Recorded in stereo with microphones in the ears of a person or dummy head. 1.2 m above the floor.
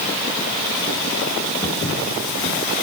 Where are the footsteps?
25° left (ahead or behind), 3 m.